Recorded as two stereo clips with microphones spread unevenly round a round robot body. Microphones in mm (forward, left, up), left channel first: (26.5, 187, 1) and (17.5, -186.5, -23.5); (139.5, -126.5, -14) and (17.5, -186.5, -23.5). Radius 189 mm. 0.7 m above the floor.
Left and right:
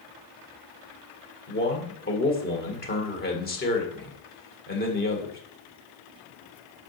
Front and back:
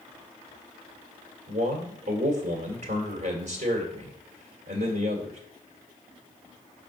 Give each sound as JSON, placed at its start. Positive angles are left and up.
{"t": 1.5, "sound": "a man speaking", "azimuth_deg": 155, "distance_m": 1.9}